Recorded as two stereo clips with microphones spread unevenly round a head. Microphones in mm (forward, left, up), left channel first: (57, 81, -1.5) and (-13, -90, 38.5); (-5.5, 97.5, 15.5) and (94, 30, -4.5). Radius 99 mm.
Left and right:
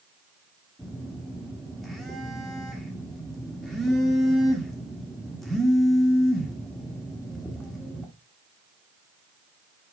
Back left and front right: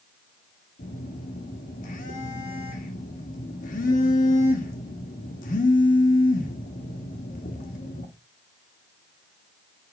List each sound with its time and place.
0.8 s a phone buzzing: 155° left, 1.6 m